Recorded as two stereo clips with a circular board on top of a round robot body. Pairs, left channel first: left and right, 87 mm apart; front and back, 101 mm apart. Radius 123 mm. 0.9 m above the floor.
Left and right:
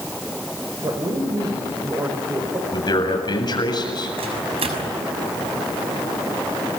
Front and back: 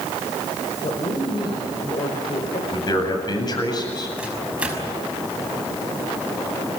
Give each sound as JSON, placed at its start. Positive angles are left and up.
{"t": 0.8, "sound": "a woman speaking", "azimuth_deg": -45, "distance_m": 4.0}
{"t": 2.7, "sound": "a man speaking", "azimuth_deg": 50, "distance_m": 8.0}
{"t": 4.2, "sound": "a microwave", "azimuth_deg": -100, "distance_m": 5.5}